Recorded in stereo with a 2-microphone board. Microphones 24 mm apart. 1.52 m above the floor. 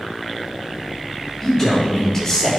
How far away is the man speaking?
About 4 m.